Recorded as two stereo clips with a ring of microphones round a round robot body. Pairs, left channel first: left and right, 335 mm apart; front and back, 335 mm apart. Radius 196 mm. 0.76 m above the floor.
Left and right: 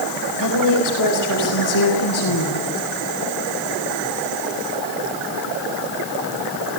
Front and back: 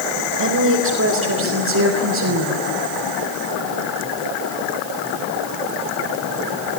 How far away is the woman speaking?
About 5 m.